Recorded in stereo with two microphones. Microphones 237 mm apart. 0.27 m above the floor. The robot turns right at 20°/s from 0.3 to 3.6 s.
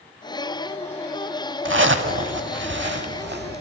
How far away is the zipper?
About 0.6 m.